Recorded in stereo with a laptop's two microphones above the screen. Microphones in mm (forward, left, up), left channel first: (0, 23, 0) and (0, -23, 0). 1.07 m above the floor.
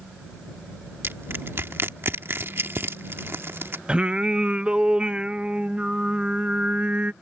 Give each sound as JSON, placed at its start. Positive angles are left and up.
{"t": 1.0, "sound": "crushing", "side_deg": -55}
{"t": 3.9, "sound": "singing", "side_deg": -20}